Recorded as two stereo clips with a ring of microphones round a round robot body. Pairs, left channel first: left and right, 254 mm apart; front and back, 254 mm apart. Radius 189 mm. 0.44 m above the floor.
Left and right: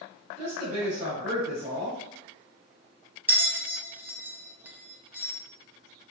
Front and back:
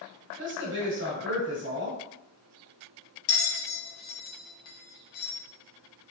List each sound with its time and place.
0.4 s a woman speaking: 150° right, 1.3 m
3.3 s a bell: 5° right, 0.8 m